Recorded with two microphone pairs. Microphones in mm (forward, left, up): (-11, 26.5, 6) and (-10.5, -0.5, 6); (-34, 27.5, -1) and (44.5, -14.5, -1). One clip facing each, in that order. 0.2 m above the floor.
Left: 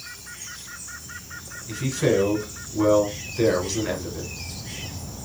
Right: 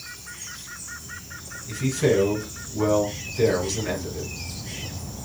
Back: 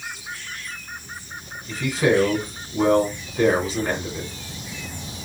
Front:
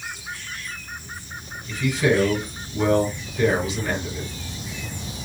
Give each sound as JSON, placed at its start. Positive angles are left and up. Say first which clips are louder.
{"t": 1.7, "sound": "a man speaking", "louder": "even, back 1 dB", "azimuth_deg": 165, "distance_m": 1.4}